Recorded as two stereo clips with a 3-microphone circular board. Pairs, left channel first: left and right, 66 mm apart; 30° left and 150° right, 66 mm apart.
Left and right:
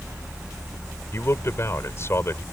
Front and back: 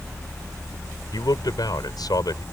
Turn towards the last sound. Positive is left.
turn(degrees=40)